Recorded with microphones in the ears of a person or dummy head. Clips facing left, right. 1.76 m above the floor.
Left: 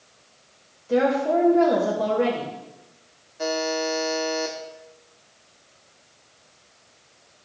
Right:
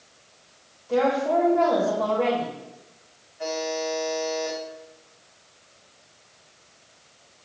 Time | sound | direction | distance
0.9 | a woman speaking | 30° left (ahead or behind) | 3 m
3.4 | a buzzer | 50° left (ahead or behind) | 2 m